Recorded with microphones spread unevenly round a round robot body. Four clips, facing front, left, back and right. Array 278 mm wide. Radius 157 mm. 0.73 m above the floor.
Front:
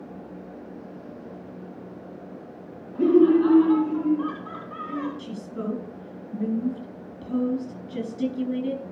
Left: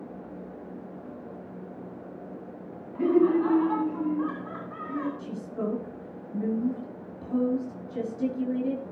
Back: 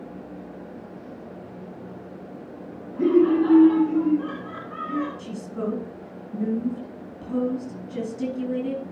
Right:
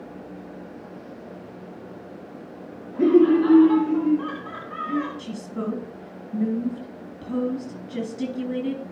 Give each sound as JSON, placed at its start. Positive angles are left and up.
{"t": 3.0, "sound": "laughter", "azimuth_deg": -55, "distance_m": 2.5}
{"t": 5.2, "sound": "a woman speaking", "azimuth_deg": -70, "distance_m": 5.5}